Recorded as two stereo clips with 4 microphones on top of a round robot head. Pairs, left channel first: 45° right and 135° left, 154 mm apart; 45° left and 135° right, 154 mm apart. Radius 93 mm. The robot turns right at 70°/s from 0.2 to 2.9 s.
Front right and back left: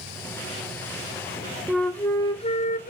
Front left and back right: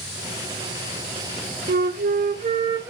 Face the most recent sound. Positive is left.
turn(degrees=-60)